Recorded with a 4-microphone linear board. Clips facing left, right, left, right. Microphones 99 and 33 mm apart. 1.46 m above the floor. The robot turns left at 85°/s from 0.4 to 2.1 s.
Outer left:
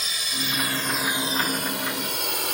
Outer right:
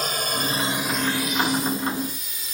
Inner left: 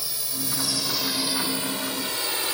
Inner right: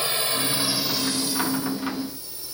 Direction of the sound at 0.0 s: 50° right (ahead or behind).